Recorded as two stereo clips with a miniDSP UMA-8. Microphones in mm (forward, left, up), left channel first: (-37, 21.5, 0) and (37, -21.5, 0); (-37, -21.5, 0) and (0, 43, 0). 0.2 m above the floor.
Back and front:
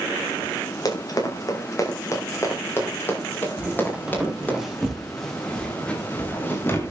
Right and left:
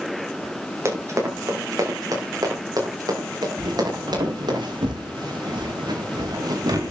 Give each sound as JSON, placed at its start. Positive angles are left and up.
{"t": 0.8, "sound": "running footsteps", "azimuth_deg": 110, "distance_m": 5.0}
{"t": 3.6, "sound": "footsteps", "azimuth_deg": 45, "distance_m": 4.0}